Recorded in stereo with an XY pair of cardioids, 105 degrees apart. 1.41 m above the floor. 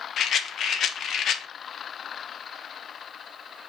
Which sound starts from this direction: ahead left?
A rattle, at 0.2 s.